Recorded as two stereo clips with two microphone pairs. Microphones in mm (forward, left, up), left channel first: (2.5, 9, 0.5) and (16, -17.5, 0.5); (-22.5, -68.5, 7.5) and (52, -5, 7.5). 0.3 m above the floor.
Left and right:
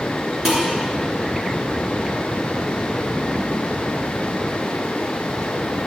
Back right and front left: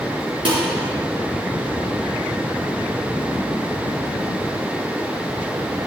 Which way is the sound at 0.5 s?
10° left.